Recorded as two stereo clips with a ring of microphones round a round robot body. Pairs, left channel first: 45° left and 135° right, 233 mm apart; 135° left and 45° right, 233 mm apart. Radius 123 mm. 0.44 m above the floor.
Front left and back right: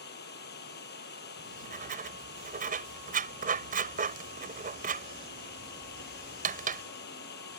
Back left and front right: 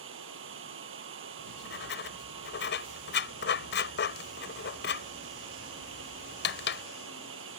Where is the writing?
175° left.